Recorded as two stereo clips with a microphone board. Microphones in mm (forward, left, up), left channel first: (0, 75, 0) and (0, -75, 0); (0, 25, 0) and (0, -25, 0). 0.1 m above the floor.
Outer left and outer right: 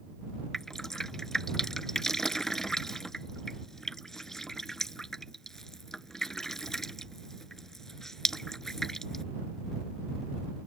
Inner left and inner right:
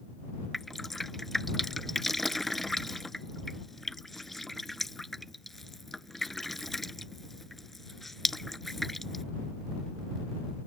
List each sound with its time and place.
0.5 s dripping: 5° left (ahead or behind)